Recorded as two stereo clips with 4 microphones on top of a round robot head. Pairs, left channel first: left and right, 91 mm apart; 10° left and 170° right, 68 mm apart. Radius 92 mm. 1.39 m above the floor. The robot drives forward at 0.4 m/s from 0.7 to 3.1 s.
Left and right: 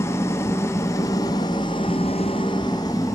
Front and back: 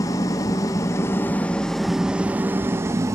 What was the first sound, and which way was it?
An engine running, 35° left.